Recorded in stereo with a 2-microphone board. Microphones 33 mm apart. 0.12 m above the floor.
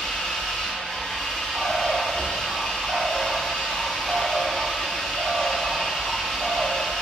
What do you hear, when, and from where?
0.0 s an engine running: 20° left (ahead or behind), 1.2 m
1.5 s a bird: 75° right (ahead or behind), 0.8 m